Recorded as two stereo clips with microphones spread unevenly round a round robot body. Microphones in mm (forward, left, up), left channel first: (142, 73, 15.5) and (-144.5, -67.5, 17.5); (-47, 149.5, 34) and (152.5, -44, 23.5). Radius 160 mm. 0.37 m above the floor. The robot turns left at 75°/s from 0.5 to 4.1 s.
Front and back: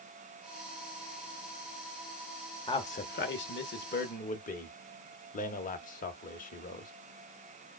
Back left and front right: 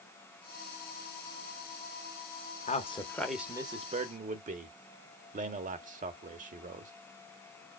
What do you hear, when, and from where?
2.7 s a man speaking: 90° left, 1.0 m; by 6.9 s 15° right, 1.0 m